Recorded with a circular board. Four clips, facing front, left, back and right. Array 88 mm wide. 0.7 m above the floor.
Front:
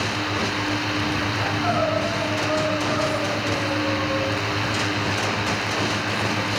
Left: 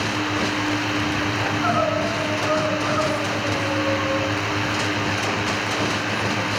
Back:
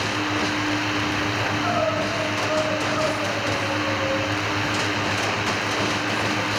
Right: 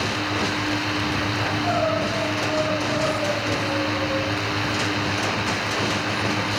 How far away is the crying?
About 9.5 m.